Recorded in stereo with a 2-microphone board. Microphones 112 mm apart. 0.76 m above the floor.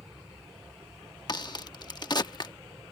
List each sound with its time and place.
0.0 s an aircraft: 35° right (ahead or behind)
1.3 s a crack: 40° left (ahead or behind)